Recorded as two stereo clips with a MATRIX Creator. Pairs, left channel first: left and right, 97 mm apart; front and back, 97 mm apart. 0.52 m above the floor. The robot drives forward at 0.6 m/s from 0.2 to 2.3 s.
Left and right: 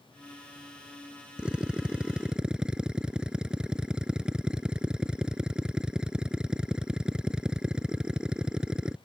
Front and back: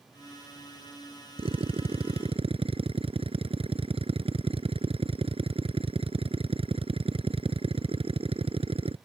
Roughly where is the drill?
Behind.